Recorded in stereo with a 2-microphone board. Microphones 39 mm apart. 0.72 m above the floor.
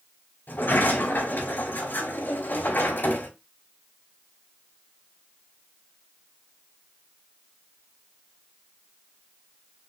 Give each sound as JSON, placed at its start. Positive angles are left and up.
{"t": 0.5, "sound": "a sliding door", "side_deg": 80, "distance_m": 3.5}